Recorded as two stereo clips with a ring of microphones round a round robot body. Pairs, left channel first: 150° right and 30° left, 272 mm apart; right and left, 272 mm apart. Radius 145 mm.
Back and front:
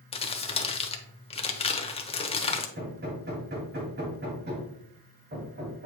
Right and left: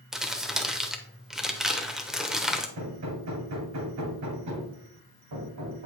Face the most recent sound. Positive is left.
turn(degrees=80)